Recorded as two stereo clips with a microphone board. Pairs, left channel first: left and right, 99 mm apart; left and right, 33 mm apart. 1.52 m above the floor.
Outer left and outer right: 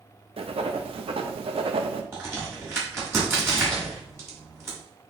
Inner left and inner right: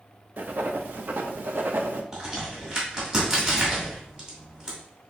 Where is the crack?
30° right (ahead or behind), 1.9 m.